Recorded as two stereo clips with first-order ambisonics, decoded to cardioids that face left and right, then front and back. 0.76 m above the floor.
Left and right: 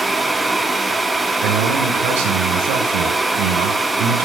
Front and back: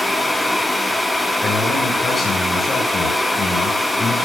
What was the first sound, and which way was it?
A man speaking, 75° right.